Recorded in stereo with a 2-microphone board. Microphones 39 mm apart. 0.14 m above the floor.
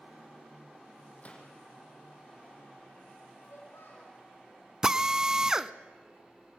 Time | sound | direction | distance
1.2 | a gunshot | 35° left (ahead or behind) | 5 m
3.4 | a child speaking | 80° left | 5.5 m
4.8 | a drill | 20° right (ahead or behind) | 0.6 m